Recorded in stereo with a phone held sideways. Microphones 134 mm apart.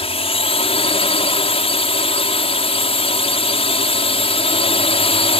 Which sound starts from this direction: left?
A drone, at 0.0 s.